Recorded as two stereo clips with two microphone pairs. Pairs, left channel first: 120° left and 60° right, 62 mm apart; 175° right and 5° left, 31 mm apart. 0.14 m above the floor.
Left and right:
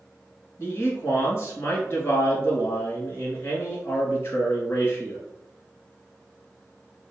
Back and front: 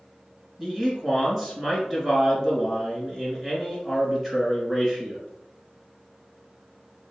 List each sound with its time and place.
0.6 s a man speaking: 75° left, 1.5 m